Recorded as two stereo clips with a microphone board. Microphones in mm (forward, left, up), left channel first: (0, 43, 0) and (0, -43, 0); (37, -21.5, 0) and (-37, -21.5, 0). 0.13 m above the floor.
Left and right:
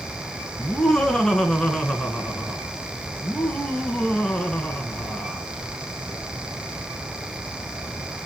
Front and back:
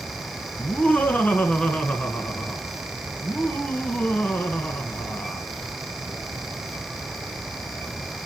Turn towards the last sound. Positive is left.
turn(degrees=20)